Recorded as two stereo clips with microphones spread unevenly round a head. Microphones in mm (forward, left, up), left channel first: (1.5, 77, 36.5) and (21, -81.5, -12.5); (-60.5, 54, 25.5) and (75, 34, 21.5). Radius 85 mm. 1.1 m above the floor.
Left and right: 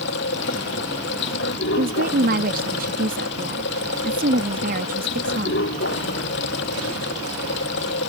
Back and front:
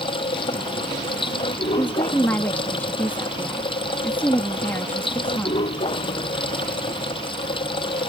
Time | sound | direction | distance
0.0 | running water | 120° left | ?
1.8 | a woman speaking | 110° right | ?